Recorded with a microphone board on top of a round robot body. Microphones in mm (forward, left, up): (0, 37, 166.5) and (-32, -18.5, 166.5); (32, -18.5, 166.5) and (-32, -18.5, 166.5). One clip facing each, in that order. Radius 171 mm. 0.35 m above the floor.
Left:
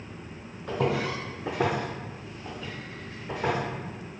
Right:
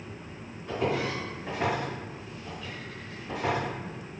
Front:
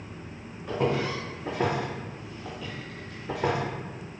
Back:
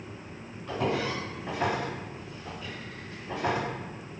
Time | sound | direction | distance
0.7 | footsteps | 80° left | 1.0 m